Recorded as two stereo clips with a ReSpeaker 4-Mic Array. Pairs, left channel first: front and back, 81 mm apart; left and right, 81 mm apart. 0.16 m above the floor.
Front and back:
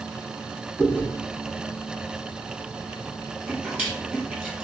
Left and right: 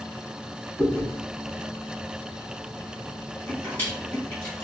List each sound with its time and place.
0.8 s chewing: 130° left, 1.5 m